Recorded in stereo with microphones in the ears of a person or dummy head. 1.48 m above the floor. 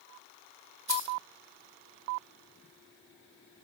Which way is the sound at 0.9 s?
25° right (ahead or behind).